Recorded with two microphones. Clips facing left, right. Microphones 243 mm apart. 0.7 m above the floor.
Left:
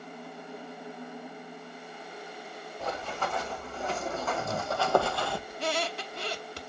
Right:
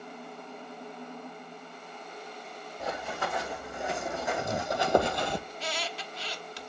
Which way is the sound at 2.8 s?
10° right (ahead or behind).